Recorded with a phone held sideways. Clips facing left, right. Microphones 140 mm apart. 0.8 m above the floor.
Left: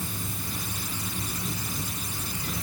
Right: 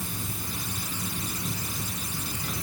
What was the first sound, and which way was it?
Only background noise.